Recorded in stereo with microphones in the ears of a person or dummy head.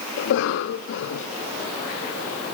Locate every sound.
0.2 s a cough: 65° left (ahead or behind), 0.6 m